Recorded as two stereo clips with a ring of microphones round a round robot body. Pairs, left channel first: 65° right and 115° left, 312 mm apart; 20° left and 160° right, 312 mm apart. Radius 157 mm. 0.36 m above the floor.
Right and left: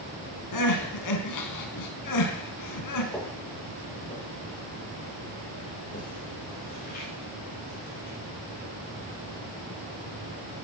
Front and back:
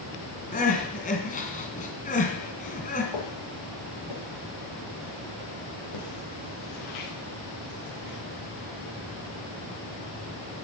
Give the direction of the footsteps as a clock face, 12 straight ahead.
11 o'clock.